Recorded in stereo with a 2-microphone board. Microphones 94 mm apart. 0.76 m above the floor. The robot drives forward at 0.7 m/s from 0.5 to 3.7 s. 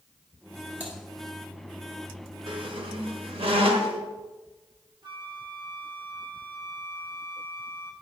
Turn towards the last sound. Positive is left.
turn(degrees=-55)  # may be behind; listen again after turning